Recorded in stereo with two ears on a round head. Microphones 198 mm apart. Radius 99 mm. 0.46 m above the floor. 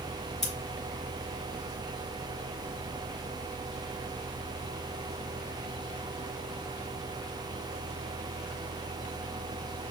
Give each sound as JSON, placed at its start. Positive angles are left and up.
{"t": 0.4, "sound": "scissors", "side_deg": 0, "distance_m": 1.8}